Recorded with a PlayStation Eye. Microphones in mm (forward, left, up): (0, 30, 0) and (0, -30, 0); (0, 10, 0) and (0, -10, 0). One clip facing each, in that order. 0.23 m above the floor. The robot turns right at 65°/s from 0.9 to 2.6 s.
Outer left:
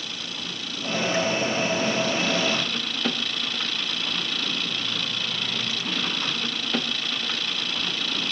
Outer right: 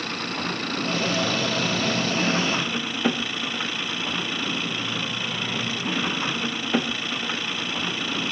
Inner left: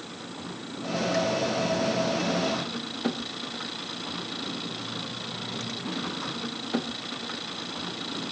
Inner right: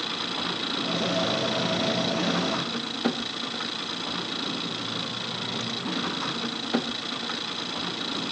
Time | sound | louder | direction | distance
0.0 | an engine running | outer right 7 dB, inner right 10 dB | 130° right | ?